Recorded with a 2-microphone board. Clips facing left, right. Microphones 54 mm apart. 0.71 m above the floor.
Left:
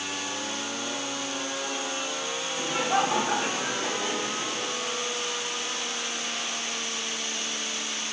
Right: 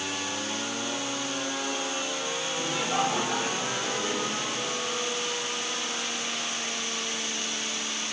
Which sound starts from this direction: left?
Laughter, at 2.6 s.